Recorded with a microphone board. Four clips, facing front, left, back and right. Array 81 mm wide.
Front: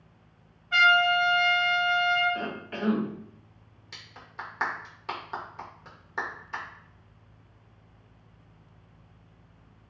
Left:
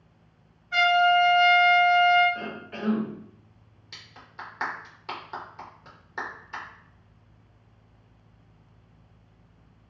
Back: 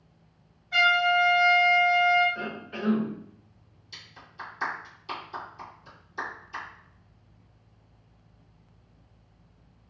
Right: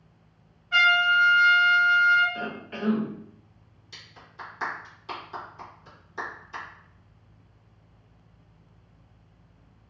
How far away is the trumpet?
About 1.9 m.